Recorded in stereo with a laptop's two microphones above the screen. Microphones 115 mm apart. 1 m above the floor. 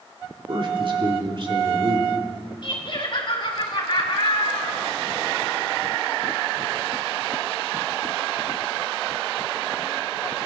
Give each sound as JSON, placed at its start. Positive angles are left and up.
{"t": 0.5, "sound": "a man speaking", "side_deg": -50, "distance_m": 2.5}
{"t": 2.6, "sound": "laughter", "side_deg": 50, "distance_m": 4.0}